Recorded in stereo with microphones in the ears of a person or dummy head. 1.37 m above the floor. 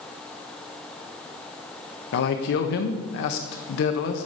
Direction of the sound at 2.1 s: 60° left (ahead or behind).